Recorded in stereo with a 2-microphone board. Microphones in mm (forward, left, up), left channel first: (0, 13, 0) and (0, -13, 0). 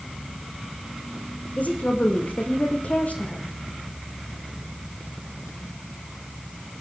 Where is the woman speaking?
70° left (ahead or behind), 6 m.